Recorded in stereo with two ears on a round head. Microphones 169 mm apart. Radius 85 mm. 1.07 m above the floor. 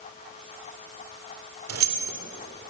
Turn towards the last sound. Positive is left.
turn(degrees=-85)